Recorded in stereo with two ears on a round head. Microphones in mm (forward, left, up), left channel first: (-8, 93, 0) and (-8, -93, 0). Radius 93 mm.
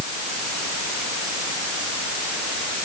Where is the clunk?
I don't hear a clunk.